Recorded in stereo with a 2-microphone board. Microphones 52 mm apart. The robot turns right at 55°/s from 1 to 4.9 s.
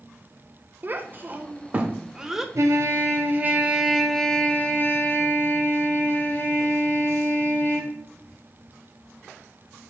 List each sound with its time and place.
0.8 s a child speaking: 40° right (ahead or behind), 0.6 m; by 2.5 s 5° right (ahead or behind), 0.6 m
2.5 s a trumpet: 85° right, 0.8 m; by 7.9 s 45° left, 0.8 m